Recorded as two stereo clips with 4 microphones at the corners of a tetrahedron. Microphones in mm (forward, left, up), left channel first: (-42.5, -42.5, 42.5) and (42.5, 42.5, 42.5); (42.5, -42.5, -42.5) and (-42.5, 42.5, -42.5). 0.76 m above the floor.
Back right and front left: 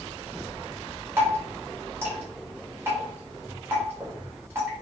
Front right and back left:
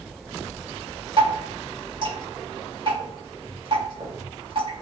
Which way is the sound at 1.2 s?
110° left.